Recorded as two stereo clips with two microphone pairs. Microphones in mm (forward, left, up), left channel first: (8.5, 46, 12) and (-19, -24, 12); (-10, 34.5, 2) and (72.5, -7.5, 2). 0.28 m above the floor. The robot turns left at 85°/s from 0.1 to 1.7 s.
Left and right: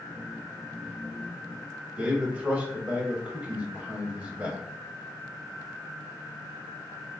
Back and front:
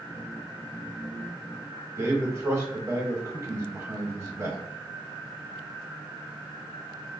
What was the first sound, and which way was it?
A man speaking, 55° right.